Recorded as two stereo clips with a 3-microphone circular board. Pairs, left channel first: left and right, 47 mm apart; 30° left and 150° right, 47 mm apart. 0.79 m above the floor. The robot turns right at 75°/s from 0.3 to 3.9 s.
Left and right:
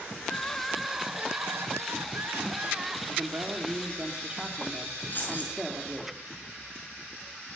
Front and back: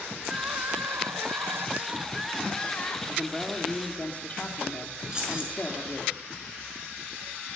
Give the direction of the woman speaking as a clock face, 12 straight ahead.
3 o'clock.